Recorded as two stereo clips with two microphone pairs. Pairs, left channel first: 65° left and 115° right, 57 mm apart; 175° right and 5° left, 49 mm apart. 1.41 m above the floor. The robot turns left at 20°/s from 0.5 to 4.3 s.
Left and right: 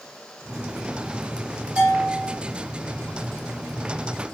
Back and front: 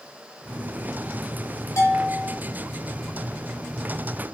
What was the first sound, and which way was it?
A bell, 175° left.